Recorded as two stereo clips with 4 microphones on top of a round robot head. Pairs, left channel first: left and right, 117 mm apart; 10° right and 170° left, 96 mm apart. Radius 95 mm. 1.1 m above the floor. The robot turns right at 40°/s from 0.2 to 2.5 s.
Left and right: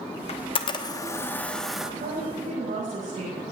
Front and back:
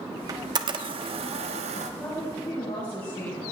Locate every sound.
0.3 s a camera shutter: 120° left, 1.0 m; by 1.9 s 175° right, 1.0 m
2.0 s a woman speaking: 85° right, 7.5 m; by 3.4 s 65° right, 7.5 m